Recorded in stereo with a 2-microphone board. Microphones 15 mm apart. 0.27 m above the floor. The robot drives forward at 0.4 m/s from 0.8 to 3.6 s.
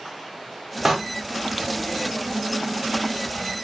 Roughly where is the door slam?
Centre.